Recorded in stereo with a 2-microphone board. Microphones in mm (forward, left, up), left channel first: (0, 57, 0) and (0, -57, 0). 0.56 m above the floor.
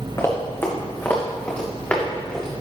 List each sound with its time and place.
0.2 s running footsteps: 25° left (ahead or behind), 2.5 m; by 2.5 s 10° left (ahead or behind), 3.5 m